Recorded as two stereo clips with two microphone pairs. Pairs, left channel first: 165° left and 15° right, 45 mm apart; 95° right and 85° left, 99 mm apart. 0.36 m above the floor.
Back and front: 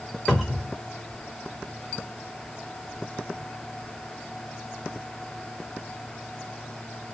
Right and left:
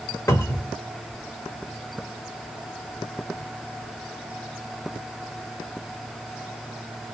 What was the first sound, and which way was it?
A cupboard door, 120° right.